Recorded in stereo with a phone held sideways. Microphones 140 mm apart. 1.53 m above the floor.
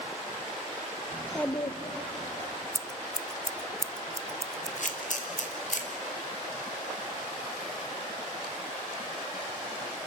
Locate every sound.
1.1 s a child speaking: 25° right (ahead or behind), 0.8 m; by 2.5 s 70° left (ahead or behind), 1.9 m
2.8 s scissors: 20° right (ahead or behind), 0.5 m
4.8 s a camera shutter: 65° left (ahead or behind), 2.5 m